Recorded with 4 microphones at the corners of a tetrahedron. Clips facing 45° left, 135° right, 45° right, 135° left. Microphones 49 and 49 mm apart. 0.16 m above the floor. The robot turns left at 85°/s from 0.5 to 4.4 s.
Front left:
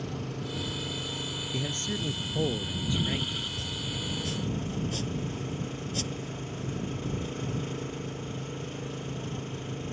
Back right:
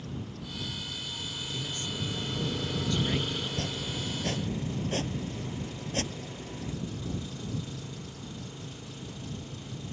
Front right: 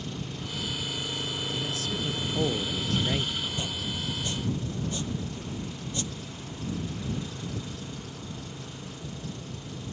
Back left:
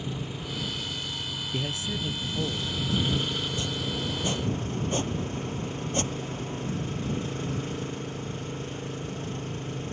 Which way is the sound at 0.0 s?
60° left.